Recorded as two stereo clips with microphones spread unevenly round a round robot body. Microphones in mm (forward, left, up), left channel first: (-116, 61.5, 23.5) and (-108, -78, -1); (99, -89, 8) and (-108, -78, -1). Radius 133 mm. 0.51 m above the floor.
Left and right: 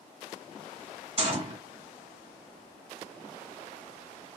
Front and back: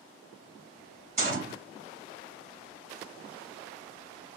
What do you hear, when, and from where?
1.2 s a gunshot: 130° right, 2 m